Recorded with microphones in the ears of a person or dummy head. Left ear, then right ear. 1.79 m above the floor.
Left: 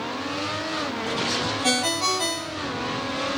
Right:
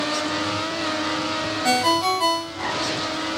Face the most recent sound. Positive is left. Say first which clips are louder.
# right 5 dB
turn(degrees=35)  # may be behind; listen again after turning